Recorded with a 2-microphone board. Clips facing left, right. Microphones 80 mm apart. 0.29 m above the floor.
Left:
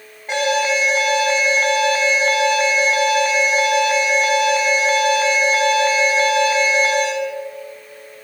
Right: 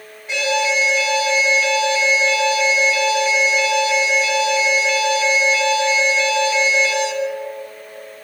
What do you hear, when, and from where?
0.3 s an alarm: 45° left (ahead or behind), 2.5 m